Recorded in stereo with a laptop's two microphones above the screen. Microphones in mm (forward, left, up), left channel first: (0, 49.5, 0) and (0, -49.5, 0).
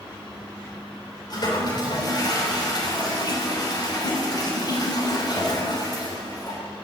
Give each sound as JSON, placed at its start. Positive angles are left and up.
{"t": 1.3, "sound": "a toilet flushing", "side_deg": 45, "distance_m": 3.0}